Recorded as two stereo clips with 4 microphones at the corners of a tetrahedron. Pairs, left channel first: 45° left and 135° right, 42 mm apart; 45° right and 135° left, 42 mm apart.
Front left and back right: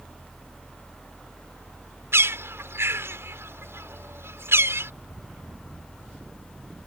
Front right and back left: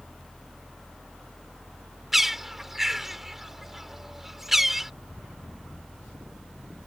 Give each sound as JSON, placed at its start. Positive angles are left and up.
{"t": 2.1, "sound": "a bird", "azimuth_deg": -140}